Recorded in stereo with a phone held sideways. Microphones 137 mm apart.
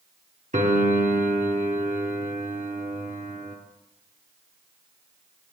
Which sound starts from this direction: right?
A piano, at 0.5 s.